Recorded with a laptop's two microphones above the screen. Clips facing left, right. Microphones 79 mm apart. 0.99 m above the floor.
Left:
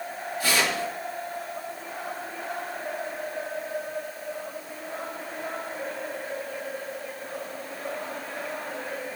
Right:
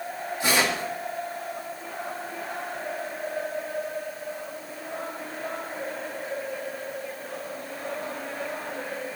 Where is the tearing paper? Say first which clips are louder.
Right 1 dB; 25° right (ahead or behind), 2 m.